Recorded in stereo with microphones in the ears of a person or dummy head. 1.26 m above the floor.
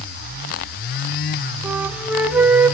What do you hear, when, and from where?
1.6 s a flute: 5° right (ahead or behind), 0.7 m